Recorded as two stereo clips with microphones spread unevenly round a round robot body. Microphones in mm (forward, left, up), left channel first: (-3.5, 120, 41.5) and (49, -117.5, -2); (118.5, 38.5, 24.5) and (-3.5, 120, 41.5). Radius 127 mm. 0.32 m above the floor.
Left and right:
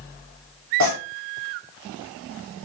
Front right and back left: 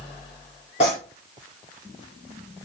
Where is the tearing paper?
90° right, 6 m.